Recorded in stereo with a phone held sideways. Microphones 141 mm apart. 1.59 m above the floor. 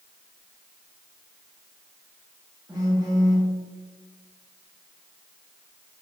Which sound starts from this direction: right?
A phone buzzing, at 2.7 s.